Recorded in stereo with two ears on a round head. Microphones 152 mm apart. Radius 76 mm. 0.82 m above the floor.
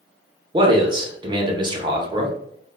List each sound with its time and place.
0.5 s a man speaking: 25° right (ahead or behind), 0.6 m